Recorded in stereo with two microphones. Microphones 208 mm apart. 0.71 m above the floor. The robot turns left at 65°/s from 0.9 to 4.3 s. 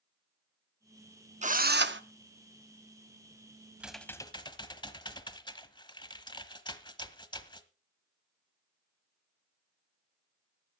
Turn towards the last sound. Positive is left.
turn(degrees=155)